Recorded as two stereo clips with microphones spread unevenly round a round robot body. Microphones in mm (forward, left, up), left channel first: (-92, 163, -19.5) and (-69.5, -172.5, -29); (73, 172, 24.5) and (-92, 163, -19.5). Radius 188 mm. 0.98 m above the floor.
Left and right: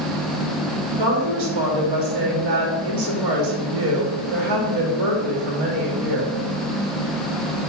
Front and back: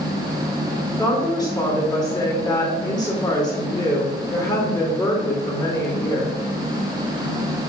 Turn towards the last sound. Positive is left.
turn(degrees=-80)